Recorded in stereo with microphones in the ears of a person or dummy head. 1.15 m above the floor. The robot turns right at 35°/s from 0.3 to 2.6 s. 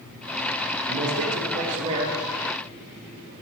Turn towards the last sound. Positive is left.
turn(degrees=-10)